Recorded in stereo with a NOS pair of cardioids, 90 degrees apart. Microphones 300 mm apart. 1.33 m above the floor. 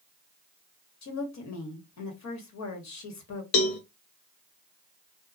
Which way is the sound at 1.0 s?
65° left.